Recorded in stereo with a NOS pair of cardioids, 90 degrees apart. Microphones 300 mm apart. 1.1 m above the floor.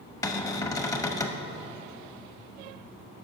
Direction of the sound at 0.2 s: 10° left.